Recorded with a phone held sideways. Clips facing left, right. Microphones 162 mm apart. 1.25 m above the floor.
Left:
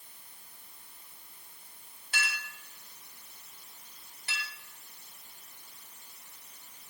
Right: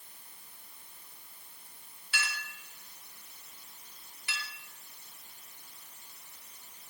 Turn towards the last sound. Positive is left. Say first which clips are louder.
# left 1 dB
turn(degrees=40)  # may be behind; listen again after turning